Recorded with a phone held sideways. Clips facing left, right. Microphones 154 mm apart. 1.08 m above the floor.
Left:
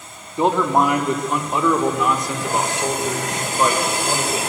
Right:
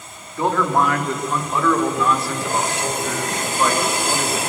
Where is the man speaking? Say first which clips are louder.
Left 2 dB; 20° left (ahead or behind), 2 m; by 4.4 s 15° left (ahead or behind), 4.5 m.